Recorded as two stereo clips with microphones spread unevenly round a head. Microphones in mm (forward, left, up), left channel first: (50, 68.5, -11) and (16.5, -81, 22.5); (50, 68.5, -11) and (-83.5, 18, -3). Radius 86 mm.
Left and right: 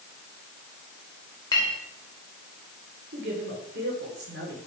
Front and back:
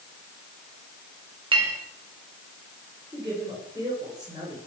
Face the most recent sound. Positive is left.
turn(degrees=-90)